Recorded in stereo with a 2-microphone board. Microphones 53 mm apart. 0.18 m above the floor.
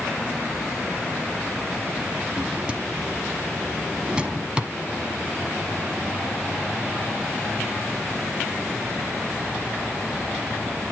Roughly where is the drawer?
Centre.